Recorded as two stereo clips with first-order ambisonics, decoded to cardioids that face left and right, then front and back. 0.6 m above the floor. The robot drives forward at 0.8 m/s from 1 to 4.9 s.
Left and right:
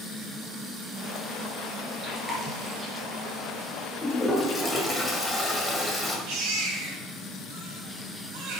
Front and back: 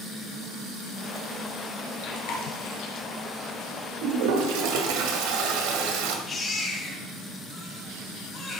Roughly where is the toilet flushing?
Behind.